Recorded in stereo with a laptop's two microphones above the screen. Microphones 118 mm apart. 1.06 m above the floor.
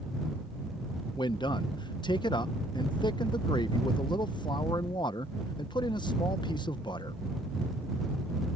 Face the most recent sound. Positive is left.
turn(degrees=40)  # may be behind; listen again after turning